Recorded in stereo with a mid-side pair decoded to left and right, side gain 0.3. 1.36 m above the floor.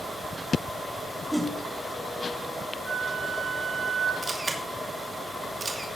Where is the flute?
25° right, 7 m.